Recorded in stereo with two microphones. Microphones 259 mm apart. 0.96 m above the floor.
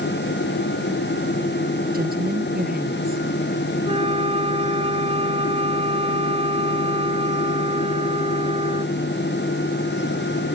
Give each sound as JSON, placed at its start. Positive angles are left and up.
{"t": 1.9, "sound": "a woman speaking", "side_deg": -35}
{"t": 3.9, "sound": "a flute", "side_deg": -20}